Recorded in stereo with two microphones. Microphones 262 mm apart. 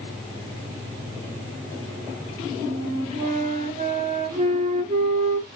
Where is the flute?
30° right (ahead or behind), 0.5 m.